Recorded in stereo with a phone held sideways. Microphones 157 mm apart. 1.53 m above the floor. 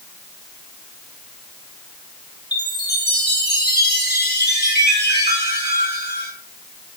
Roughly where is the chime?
Left.